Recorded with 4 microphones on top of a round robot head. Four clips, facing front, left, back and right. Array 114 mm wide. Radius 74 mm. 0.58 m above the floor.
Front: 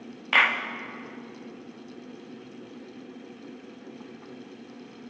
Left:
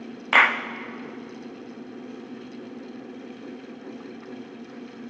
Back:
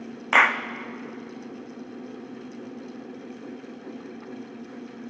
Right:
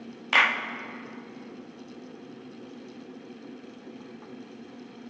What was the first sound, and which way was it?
A clap, 140° left.